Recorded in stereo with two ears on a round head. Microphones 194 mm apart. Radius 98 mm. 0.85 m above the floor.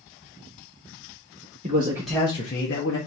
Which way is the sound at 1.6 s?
30° right (ahead or behind).